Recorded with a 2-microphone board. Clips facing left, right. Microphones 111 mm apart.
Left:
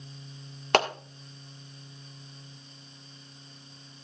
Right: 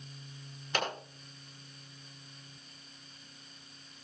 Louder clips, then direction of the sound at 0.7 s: Left 10 dB; 80° left.